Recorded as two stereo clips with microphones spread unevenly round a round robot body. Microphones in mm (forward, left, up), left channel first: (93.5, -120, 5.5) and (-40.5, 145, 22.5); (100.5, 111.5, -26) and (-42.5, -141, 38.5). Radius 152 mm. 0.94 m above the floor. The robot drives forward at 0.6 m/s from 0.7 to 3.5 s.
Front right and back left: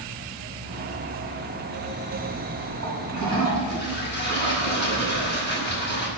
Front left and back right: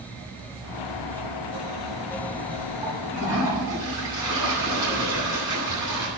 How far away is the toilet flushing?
About 9.5 m.